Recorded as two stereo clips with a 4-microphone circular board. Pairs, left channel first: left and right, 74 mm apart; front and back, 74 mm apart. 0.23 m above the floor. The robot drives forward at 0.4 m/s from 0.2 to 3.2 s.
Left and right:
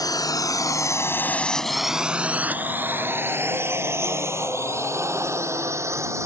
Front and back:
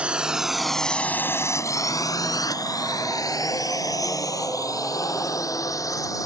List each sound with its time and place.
0.0 s a drone: 110° left; by 6.3 s 40° right